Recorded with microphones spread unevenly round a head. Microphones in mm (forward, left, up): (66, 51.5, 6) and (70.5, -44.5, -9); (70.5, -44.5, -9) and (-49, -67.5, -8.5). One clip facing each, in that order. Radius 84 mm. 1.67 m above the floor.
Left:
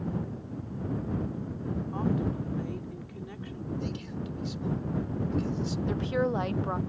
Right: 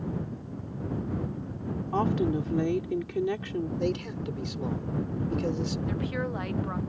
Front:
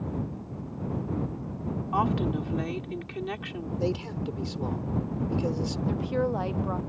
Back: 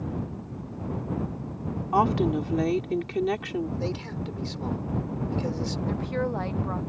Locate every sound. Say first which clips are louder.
1.9 s a woman speaking: right 5 dB, back 5 dB; 125° right
3.8 s a man speaking: right 6 dB, front 2 dB; 60° right
5.9 s a woman speaking: left 3 dB, front 2 dB; 85° left